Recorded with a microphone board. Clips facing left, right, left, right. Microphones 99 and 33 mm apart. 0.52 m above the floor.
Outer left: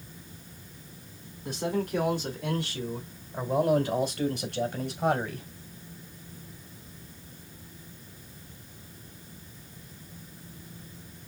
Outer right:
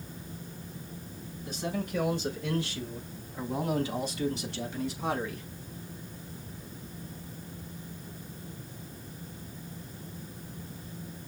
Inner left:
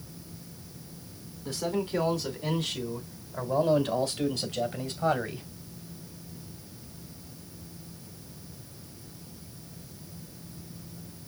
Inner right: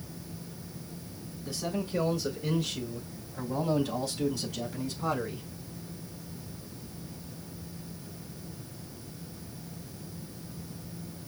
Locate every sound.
1.4 s a man speaking: 75° left (ahead or behind), 4.5 m; by 5.5 s 60° left (ahead or behind), 2.5 m